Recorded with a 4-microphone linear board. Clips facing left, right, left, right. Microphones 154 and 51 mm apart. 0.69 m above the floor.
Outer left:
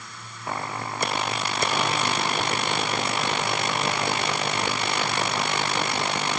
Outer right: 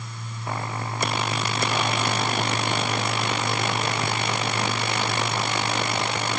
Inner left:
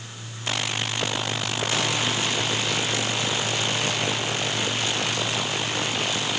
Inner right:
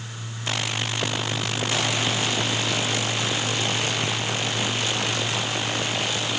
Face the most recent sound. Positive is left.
No sound to turn to.